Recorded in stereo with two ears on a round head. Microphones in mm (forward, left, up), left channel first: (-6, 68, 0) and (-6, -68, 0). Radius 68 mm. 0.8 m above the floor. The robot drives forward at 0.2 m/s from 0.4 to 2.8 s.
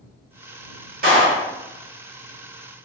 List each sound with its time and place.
1.0 s a clap: 60° right (ahead or behind), 1.4 m; by 1.5 s 65° right (ahead or behind), 1.4 m